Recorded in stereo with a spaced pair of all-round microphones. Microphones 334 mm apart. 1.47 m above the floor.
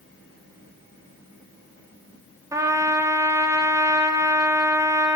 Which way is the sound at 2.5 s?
10° right (ahead or behind).